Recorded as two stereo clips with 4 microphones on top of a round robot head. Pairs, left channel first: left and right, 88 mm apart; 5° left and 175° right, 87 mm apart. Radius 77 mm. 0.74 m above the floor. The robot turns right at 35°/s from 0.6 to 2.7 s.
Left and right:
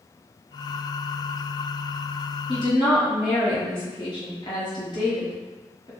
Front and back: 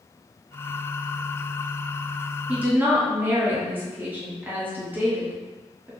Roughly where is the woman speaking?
Behind left.